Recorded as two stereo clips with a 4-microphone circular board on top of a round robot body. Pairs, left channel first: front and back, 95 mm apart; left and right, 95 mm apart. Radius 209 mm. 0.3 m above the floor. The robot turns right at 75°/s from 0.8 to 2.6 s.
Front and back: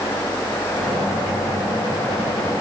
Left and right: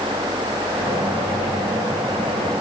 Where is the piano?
No piano in this recording.